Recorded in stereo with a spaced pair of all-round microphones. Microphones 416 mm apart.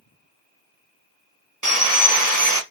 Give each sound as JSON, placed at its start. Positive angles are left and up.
{"t": 1.6, "sound": "sawing", "side_deg": -50, "distance_m": 1.4}